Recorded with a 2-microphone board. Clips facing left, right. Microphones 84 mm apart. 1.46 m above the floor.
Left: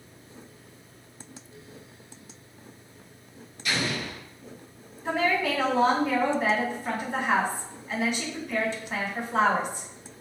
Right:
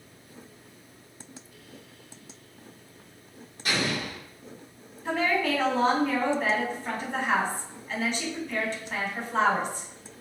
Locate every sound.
3.6 s an explosion: 40° right (ahead or behind), 1.4 m
5.0 s a woman speaking: 10° left (ahead or behind), 1.4 m